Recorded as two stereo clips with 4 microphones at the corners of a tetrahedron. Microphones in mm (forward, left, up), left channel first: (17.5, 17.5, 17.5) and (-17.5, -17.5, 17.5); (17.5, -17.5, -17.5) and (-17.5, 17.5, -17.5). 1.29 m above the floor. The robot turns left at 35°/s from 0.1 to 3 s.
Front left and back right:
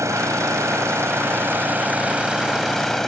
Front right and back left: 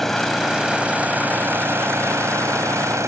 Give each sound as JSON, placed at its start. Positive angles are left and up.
{"t": 0.0, "sound": "an engine running", "azimuth_deg": -130}